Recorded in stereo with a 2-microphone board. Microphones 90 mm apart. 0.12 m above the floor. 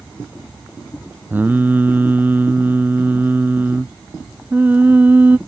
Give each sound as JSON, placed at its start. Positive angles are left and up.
{"t": 1.3, "sound": "singing", "side_deg": -20}